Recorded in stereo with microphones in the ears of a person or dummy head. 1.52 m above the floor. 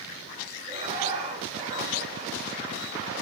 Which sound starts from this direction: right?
Laughter, at 0.7 s.